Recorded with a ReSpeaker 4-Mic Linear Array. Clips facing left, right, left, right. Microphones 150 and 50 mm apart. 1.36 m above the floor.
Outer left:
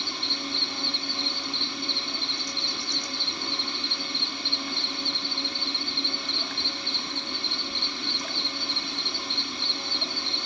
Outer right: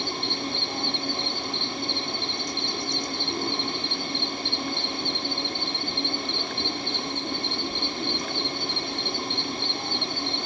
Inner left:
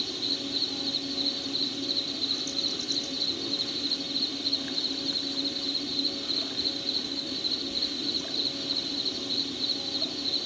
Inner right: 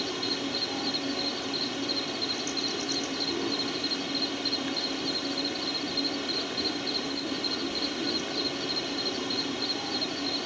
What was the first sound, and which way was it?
An insect, 50° right (ahead or behind).